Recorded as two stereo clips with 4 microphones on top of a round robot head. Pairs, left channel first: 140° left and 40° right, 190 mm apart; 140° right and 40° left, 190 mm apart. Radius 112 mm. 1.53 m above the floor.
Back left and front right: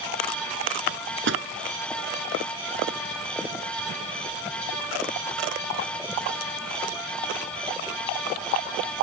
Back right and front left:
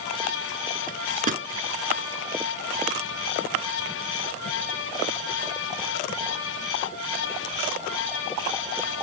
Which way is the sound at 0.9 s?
10° right.